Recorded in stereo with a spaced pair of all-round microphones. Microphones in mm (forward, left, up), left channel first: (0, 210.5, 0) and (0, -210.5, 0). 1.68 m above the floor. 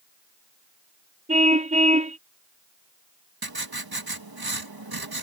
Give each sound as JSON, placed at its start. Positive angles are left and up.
{"t": 1.3, "sound": "a car horn", "side_deg": -15}
{"t": 3.4, "sound": "writing", "side_deg": -60}